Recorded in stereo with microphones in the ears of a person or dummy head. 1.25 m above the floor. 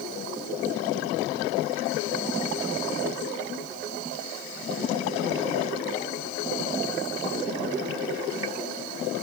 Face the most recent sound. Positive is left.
No sound to turn to.